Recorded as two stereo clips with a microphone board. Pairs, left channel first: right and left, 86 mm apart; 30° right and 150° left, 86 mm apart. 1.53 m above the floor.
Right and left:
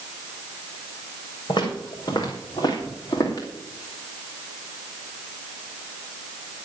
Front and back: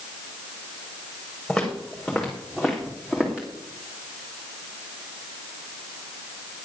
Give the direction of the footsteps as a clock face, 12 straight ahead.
4 o'clock.